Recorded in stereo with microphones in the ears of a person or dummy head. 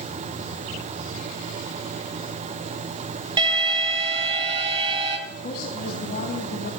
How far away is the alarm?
About 3 m.